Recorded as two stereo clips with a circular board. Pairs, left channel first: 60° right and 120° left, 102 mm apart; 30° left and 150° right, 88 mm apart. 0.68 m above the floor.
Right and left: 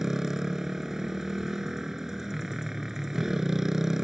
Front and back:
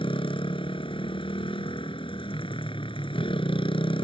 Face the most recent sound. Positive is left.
turn(degrees=35)